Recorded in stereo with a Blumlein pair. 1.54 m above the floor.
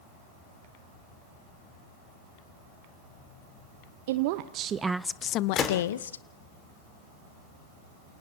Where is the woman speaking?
55° right, 1.1 m; by 6.2 s 70° left, 1.3 m.